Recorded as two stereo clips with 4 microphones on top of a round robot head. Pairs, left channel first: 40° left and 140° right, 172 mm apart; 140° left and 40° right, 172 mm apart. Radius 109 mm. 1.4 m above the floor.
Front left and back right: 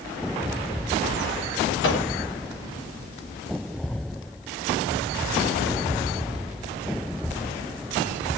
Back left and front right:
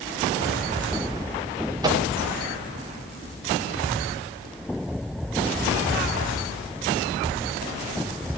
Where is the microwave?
30° left, 4 m.